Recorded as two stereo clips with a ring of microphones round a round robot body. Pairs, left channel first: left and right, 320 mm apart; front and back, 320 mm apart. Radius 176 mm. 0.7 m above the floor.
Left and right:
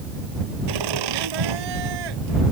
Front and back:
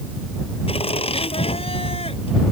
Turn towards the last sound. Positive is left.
turn(degrees=-75)